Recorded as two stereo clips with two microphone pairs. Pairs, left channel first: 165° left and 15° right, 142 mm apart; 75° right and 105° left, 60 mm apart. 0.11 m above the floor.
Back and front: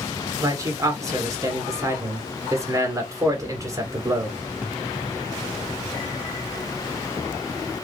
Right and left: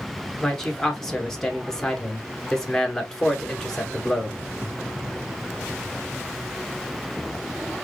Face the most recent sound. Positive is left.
turn(degrees=-5)